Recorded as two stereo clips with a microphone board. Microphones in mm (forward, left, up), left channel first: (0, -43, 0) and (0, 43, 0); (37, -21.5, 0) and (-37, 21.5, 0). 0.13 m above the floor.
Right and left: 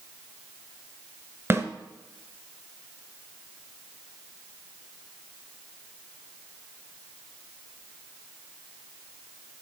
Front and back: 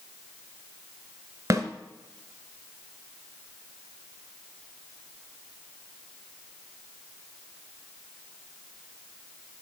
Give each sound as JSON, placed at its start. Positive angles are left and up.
{"t": 1.5, "sound": "a snare drum", "azimuth_deg": 130, "distance_m": 1.7}